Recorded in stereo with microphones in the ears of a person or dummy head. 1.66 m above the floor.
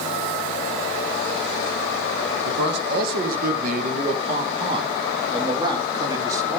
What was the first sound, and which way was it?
A man speaking, 70° right (ahead or behind).